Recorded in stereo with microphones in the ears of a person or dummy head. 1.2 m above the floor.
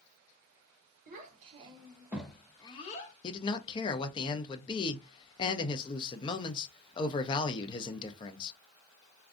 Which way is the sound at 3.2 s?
25° left (ahead or behind).